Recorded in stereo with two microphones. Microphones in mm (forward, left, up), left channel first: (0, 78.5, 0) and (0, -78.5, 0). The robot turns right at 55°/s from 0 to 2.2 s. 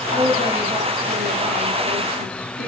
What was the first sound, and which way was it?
A woman speaking, 140° left.